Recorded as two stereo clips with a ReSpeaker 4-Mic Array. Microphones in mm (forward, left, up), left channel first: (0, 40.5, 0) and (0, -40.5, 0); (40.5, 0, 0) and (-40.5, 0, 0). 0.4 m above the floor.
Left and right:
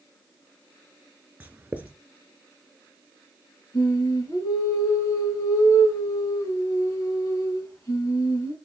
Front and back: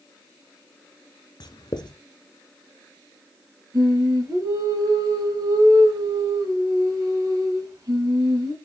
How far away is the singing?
About 4 m.